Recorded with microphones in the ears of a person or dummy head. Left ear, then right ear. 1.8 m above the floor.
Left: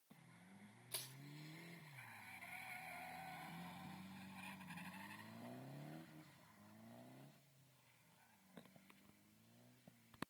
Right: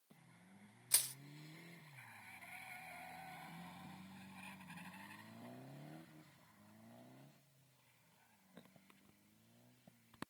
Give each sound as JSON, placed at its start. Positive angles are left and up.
{"t": 0.9, "sound": "crushing", "side_deg": -70, "distance_m": 0.6}